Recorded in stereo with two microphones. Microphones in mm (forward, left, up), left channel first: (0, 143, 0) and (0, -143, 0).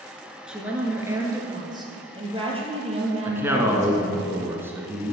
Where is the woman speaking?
5° right (ahead or behind), 1.6 m; by 4.2 s 25° right (ahead or behind), 3.5 m.